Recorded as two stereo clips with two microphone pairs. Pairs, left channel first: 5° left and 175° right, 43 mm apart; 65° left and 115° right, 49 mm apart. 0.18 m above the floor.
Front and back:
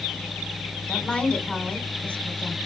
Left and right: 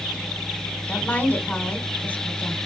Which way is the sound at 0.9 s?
45° left.